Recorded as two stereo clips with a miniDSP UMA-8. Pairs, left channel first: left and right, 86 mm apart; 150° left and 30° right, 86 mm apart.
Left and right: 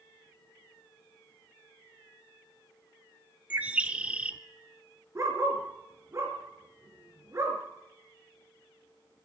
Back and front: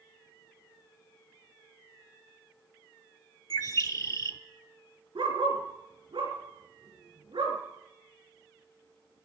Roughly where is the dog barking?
Ahead right.